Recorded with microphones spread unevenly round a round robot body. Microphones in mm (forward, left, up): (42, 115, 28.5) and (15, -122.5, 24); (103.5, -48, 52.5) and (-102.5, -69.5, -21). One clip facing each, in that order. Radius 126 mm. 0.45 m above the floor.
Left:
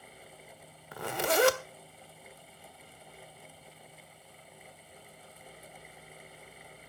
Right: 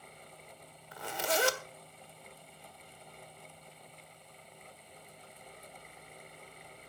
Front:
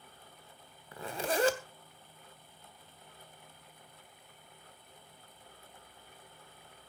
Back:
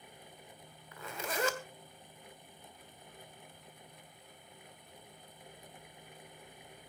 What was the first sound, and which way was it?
A zipper, 75° left.